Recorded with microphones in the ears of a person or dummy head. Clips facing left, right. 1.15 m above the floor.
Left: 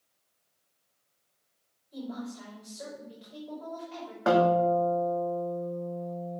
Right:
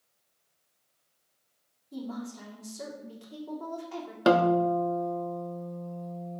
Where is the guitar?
40° right (ahead or behind), 0.8 m.